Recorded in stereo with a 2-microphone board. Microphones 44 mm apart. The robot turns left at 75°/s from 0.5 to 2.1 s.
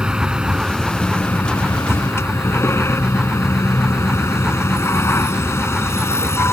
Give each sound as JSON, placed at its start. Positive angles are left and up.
{"t": 0.0, "sound": "a vehicle", "azimuth_deg": -160}